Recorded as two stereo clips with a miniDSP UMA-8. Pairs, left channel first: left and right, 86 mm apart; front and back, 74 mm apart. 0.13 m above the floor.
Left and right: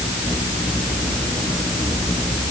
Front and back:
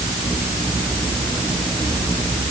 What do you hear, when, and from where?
Only background noise.